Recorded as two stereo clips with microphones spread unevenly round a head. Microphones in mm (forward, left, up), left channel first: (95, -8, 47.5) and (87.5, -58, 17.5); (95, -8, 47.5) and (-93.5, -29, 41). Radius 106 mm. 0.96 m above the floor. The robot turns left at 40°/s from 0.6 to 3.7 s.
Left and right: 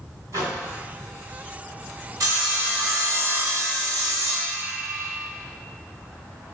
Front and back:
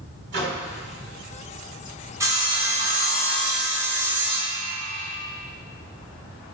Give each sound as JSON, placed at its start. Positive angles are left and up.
{"t": 0.3, "sound": "a microwave", "azimuth_deg": -140, "distance_m": 2.0}
{"t": 2.2, "sound": "sawing", "azimuth_deg": -100, "distance_m": 1.6}